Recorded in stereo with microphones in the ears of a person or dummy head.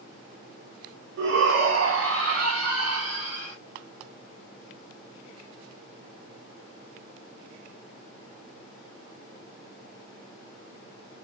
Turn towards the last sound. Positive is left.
turn(degrees=-85)